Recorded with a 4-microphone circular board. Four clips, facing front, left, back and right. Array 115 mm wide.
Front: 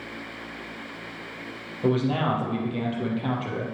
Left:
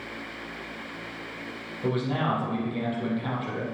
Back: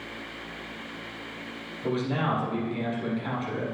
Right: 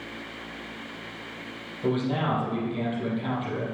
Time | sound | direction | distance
1.8 | a man speaking | straight ahead | 4 m